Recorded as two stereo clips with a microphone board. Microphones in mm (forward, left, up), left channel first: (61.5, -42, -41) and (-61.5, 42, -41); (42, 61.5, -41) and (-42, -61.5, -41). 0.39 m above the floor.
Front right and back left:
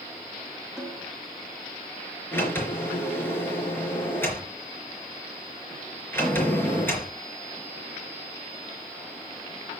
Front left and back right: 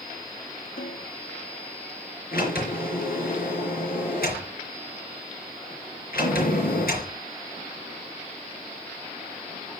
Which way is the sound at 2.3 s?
40° left.